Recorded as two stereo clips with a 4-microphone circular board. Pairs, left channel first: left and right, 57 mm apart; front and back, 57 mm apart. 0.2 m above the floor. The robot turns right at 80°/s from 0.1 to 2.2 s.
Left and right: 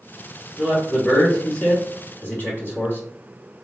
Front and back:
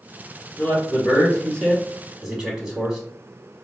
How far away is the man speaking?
About 1.3 m.